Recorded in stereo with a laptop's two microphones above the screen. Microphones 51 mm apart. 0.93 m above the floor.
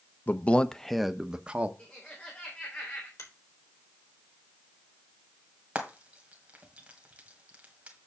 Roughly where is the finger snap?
Left.